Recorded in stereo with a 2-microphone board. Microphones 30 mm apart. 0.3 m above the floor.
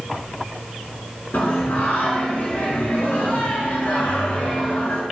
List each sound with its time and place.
1.3 s singing: 85° left, 0.8 m